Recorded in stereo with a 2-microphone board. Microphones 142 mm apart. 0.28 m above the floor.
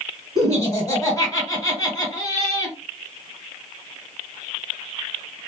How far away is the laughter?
About 1.9 m.